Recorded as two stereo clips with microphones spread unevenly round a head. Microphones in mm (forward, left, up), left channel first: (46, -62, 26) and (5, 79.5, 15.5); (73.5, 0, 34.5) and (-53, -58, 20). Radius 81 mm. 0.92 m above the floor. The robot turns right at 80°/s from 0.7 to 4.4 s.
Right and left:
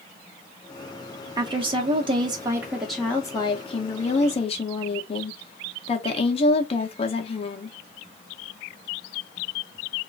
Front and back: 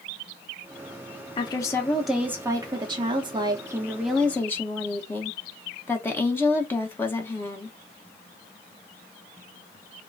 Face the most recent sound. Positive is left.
turn(degrees=-50)